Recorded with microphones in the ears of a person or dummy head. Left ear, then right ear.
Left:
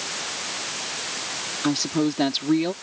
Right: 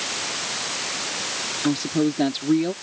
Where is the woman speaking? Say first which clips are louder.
Even; 25° left (ahead or behind).